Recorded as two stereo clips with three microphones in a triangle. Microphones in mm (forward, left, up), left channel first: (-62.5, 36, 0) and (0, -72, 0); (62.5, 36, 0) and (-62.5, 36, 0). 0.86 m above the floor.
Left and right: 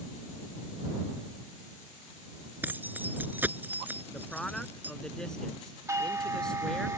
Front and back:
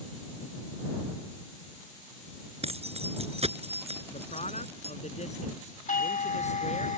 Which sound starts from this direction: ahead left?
A man speaking, at 4.1 s.